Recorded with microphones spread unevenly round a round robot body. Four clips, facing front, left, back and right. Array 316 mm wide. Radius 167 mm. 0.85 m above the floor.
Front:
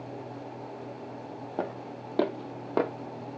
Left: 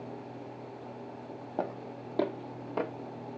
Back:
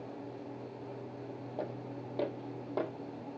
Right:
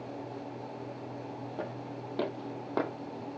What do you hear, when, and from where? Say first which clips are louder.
1.6 s footsteps: left 6 dB, front 6 dB; 30° left, 1.6 m; by 2.9 s 20° right, 1.3 m